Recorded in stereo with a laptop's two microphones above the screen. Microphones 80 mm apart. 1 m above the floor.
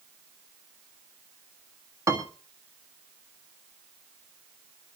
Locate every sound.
2.1 s a piano: 40° right (ahead or behind), 1.5 m